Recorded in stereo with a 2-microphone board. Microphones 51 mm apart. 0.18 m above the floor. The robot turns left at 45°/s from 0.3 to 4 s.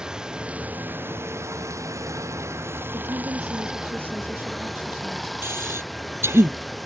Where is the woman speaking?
95° right; by 5.3 s 140° right.